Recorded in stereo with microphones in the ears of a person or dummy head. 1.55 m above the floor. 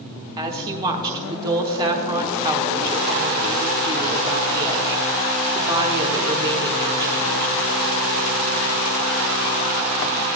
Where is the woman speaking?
20° right (ahead or behind), 1.0 m.